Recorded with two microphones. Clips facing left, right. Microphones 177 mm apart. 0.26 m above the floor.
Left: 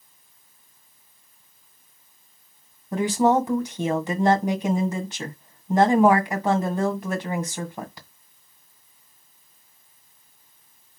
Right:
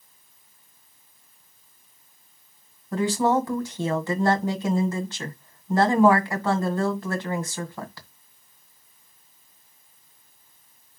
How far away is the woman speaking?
About 1.7 m.